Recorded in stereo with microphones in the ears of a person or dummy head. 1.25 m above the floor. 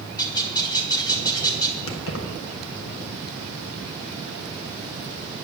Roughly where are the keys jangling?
Left.